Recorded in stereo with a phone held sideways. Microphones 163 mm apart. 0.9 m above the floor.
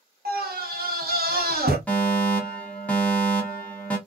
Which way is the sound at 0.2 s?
70° right (ahead or behind).